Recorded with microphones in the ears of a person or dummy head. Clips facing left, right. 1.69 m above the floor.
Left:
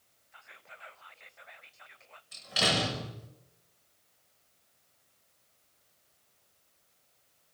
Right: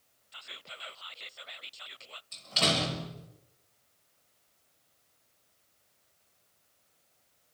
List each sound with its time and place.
0.3 s whispering: 45° right (ahead or behind), 0.7 m
2.3 s a door slam: 15° left (ahead or behind), 6 m